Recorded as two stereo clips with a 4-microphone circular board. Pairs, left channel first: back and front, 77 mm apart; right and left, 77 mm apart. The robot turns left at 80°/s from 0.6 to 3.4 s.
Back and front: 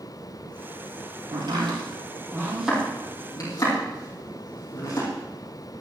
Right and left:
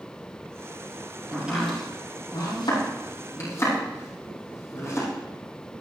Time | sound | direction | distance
1.3 | chopping | 25° left | 6 m